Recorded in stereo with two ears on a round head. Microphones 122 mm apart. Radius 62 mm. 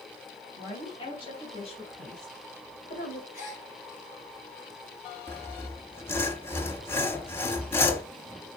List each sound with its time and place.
0.6 s a woman speaking: 35° left (ahead or behind), 4 m; by 3.2 s 70° left (ahead or behind), 2.5 m
3.3 s a gasp: 55° left (ahead or behind), 3 m
5.3 s sawing: 20° left (ahead or behind), 1.1 m